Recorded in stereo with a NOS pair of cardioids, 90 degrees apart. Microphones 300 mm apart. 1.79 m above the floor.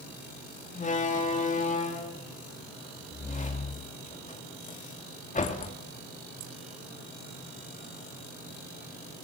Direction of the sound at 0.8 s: 25° left.